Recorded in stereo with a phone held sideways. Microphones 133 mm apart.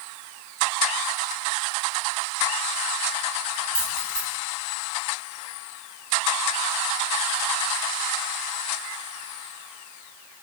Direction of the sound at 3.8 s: 15° right (ahead or behind).